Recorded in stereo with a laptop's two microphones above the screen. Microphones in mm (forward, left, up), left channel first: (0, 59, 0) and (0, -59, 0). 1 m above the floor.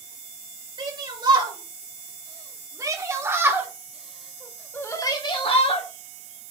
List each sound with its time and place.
0.8 s a shout: 40° right (ahead or behind), 5 m; by 5.9 s 60° left (ahead or behind), 1.8 m